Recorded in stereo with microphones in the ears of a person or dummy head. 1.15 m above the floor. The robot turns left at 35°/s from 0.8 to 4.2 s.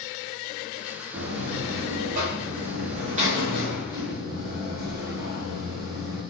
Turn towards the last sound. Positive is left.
turn(degrees=-155)